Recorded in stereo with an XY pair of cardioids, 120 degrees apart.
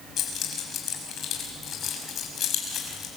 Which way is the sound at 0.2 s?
55° left.